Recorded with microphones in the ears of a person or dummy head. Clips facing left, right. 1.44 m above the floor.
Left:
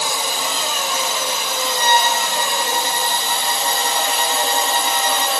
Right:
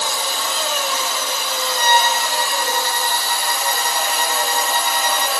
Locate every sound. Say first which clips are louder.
0.0 s a drone: left 1 dB; 15° left (ahead or behind); by 5.4 s 25° left (ahead or behind)
1.8 s a violin: even; 85° right